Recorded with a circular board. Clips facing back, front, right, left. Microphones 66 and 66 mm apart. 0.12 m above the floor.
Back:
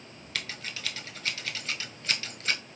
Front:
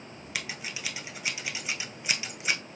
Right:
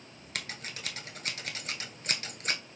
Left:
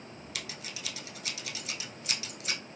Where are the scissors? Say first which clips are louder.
Front 1 dB, right 4 dB; 70° right, 0.7 m.